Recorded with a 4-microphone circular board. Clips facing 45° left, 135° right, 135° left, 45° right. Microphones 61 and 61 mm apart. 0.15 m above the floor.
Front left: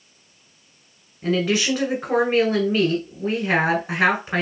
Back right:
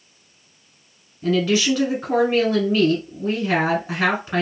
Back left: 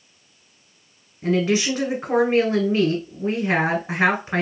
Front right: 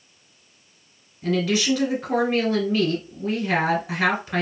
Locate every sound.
1.2 s a woman speaking: 100° left, 1.2 m